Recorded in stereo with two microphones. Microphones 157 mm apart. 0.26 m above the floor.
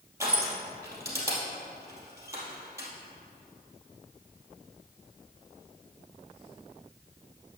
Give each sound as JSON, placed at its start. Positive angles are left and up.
{"t": 0.2, "sound": "crushing", "side_deg": -20, "distance_m": 2.5}